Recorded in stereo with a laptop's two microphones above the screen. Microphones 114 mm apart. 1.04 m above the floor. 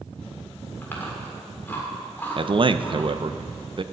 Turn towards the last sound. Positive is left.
turn(degrees=-45)  # may be behind; listen again after turning